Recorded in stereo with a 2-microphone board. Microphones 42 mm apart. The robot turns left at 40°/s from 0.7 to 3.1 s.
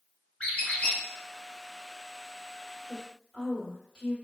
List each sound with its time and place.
0.4 s a squeak: 35° left (ahead or behind), 1.0 m; by 1.0 s 25° left (ahead or behind), 1.0 m
2.9 s a woman speaking: 20° left (ahead or behind), 1.8 m; by 4.1 s 10° left (ahead or behind), 1.8 m